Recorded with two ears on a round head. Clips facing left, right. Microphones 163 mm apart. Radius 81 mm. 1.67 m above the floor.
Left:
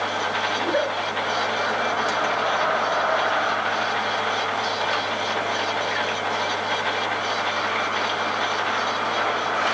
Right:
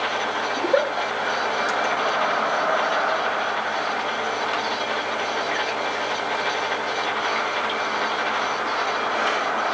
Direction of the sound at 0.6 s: 75° right (ahead or behind).